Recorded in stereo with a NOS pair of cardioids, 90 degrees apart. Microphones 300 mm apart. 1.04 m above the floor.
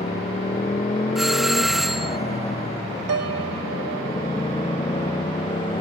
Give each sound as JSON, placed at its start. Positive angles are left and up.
{"t": 0.0, "sound": "a motorcycle", "azimuth_deg": 20}
{"t": 1.1, "sound": "a doorbell", "azimuth_deg": 0}
{"t": 3.1, "sound": "a piano", "azimuth_deg": -55}